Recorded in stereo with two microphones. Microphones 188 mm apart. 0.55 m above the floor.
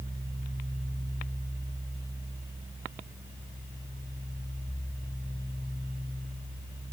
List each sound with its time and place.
Only background noise.